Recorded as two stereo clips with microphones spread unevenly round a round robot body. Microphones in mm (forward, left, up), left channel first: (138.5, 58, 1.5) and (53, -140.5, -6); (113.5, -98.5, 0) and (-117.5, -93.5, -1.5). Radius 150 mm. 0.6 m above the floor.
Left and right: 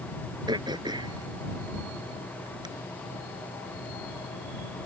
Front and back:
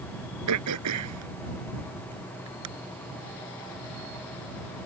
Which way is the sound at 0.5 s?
170° left.